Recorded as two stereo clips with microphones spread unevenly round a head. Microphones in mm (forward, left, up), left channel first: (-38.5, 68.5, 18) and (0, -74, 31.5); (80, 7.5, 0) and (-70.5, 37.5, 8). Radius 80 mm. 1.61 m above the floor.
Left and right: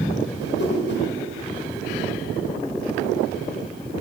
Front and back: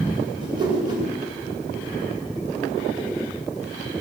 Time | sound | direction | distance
0.4 | a whoosh | 105° left | 7.5 m